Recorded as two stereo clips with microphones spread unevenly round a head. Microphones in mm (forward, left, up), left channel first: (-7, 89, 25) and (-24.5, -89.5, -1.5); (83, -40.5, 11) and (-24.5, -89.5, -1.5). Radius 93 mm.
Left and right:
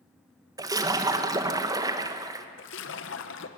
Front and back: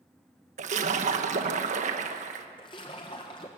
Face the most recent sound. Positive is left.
turn(degrees=85)